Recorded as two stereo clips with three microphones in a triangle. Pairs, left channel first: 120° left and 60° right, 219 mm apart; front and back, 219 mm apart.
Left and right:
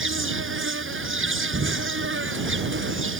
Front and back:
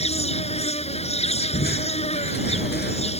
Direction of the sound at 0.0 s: 60° right.